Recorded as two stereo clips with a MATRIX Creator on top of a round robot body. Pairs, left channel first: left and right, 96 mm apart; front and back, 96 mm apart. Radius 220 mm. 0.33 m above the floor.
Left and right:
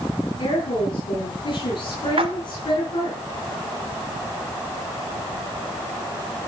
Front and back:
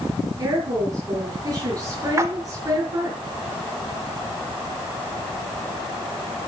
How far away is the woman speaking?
About 5 m.